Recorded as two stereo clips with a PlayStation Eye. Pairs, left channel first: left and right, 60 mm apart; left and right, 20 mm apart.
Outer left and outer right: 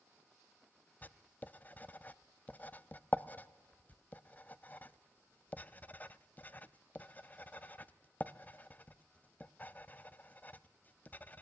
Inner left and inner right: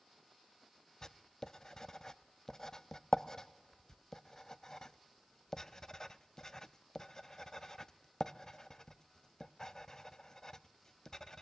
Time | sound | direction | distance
1.0 | writing | 25° left (ahead or behind) | 0.6 m